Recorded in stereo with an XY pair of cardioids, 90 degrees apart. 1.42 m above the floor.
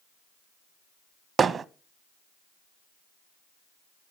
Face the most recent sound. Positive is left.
turn(degrees=-50)